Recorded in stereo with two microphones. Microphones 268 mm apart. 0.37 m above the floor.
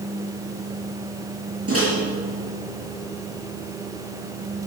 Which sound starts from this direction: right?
A microwave, at 1.7 s.